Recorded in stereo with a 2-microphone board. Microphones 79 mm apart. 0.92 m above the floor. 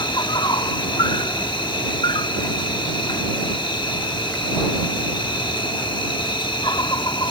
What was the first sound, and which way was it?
An insect, 80° left.